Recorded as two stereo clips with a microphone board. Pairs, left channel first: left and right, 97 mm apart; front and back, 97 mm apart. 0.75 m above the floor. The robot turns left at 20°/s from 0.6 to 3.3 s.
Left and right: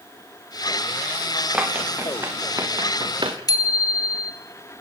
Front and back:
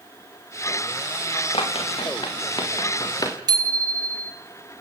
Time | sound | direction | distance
1.5 | running footsteps | 15° right | 6 m
3.5 | a bicycle bell | 135° left | 2.5 m